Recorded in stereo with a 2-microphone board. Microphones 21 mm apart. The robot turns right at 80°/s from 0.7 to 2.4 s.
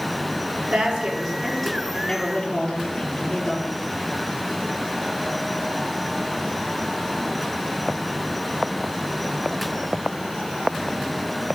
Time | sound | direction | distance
0.6 | a woman speaking | 65° right | 5.5 m